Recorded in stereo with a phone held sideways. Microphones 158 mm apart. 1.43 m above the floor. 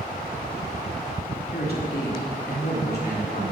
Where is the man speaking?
75° left (ahead or behind), 3 m; by 3.4 s 90° left, 3.5 m.